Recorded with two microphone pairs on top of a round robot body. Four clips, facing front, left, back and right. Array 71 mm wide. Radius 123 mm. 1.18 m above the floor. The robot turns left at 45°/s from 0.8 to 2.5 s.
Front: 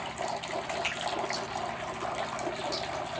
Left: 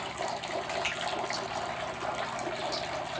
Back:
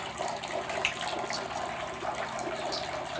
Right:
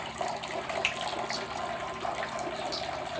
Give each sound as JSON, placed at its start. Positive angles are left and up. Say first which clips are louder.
{"t": 0.8, "sound": "a finger snap", "louder": "right 1 dB, back 1 dB", "azimuth_deg": -140, "distance_m": 0.9}